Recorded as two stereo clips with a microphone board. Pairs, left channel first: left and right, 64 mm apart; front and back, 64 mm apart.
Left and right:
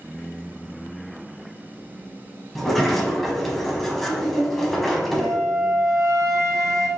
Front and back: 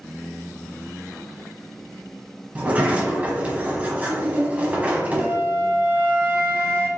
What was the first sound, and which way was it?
A sliding door, 170° left.